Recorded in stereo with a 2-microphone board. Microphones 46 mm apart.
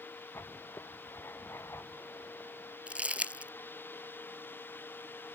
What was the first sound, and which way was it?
Writing, 70° left (ahead or behind).